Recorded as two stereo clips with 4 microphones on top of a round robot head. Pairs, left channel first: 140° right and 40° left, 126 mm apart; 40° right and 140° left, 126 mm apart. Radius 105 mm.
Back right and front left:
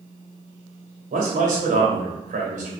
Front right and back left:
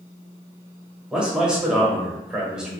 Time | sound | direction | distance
1.1 | a man speaking | 55° left | 1.1 m